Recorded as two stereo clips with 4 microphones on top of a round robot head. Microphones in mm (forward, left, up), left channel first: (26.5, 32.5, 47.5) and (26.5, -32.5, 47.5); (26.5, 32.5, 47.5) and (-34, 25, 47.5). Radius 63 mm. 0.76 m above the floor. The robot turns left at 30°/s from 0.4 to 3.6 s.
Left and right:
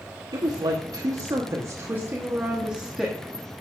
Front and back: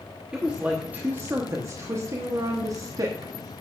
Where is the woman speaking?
95° right, 1.0 m; by 3.3 s 175° left, 1.0 m.